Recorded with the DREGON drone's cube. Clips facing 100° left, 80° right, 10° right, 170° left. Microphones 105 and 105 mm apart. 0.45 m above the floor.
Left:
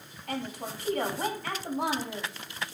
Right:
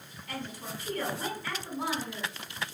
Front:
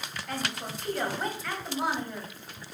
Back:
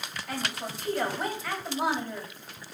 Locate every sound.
0.3 s a woman speaking: 85° left, 3 m